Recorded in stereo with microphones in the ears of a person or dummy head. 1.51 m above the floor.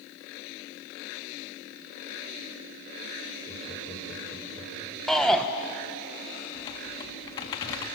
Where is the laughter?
20° left (ahead or behind), 4.5 m.